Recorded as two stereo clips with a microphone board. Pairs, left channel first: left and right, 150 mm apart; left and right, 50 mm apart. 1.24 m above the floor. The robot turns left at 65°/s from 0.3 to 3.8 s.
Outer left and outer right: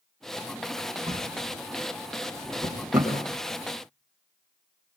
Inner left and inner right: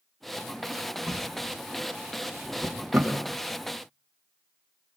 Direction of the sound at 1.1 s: 45° right (ahead or behind).